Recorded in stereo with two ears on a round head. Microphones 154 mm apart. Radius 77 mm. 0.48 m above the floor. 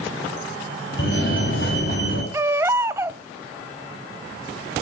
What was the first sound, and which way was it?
A fire alarm, 65° left (ahead or behind).